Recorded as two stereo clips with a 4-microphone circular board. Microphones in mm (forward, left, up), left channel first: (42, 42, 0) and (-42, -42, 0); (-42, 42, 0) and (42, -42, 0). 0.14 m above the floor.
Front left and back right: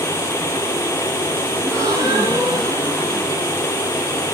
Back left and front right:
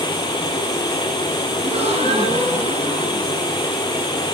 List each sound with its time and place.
1.6 s a gasp: 75° right, 6 m